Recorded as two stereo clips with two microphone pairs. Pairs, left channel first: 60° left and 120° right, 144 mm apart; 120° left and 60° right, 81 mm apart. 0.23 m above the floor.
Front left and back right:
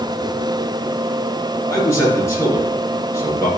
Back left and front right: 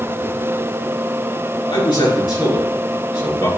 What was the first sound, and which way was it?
A man speaking, 125° left.